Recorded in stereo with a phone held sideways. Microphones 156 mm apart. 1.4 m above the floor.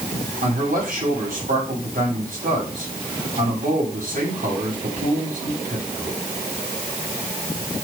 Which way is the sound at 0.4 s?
65° right (ahead or behind).